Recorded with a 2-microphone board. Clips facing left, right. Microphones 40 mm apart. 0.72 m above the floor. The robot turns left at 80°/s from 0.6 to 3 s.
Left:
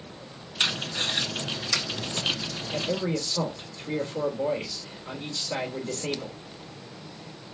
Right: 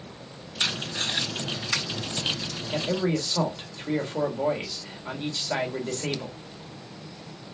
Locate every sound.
0.6 s tape being pulled: 45° left (ahead or behind), 2 m; by 2.6 s 60° right (ahead or behind), 2 m
2.7 s a man speaking: 40° right (ahead or behind), 1.6 m; by 6.4 s 50° right (ahead or behind), 1.6 m